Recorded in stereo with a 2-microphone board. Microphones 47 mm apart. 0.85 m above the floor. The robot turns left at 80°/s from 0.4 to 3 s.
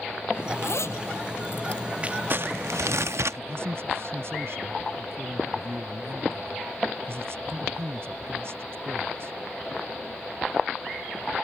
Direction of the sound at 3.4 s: 60° right (ahead or behind).